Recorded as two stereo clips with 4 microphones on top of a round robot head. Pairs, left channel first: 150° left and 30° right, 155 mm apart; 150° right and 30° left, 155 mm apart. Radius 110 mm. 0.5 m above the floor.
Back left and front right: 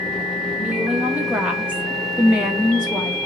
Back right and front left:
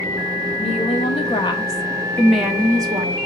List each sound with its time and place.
0.6 s a woman speaking: 110° right, 1.6 m; by 3.2 s 55° left, 1.1 m